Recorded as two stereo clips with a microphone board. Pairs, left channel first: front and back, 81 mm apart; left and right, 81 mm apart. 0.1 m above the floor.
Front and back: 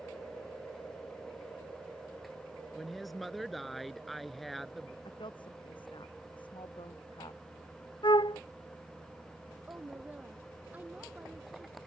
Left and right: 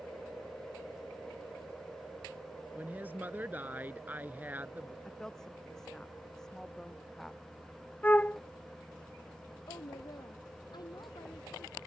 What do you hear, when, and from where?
2.8 s a woman speaking: 85° right
5.0 s a woman speaking: 5° left
8.0 s a flute: 20° left
9.7 s a woman speaking: 110° left